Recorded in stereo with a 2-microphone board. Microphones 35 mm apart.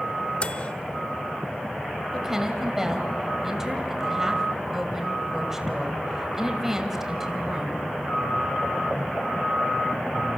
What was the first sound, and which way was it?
A microwave, 35° left (ahead or behind).